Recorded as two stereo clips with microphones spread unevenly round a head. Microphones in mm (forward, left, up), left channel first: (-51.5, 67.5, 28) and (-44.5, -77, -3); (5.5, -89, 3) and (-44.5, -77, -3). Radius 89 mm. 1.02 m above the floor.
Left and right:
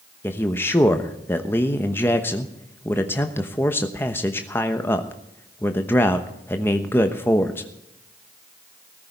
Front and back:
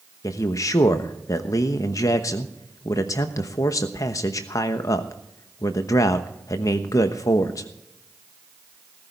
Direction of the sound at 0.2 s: 10° left.